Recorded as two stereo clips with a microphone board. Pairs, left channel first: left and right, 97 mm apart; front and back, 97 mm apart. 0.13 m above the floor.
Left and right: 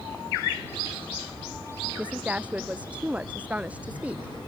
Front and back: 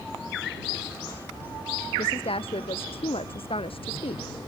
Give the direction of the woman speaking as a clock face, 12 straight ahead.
12 o'clock.